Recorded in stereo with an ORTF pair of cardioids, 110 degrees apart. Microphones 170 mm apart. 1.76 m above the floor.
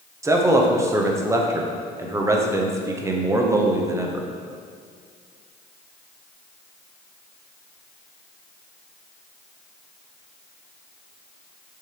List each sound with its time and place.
0.2 s a man speaking: 15° right, 1.1 m